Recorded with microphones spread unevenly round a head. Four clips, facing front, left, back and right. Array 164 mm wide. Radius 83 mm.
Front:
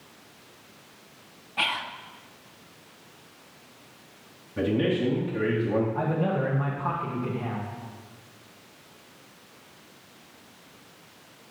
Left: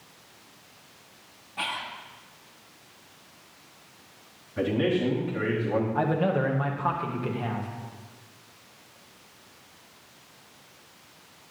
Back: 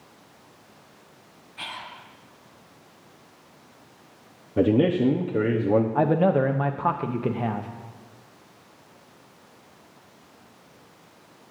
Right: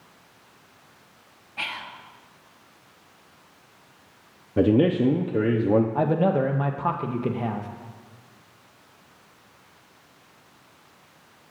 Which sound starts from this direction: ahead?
Whispering, at 1.6 s.